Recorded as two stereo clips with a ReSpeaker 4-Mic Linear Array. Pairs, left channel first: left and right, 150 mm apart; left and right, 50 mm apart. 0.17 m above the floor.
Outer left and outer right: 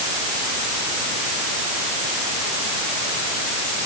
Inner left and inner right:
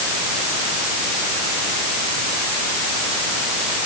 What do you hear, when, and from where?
Only background noise.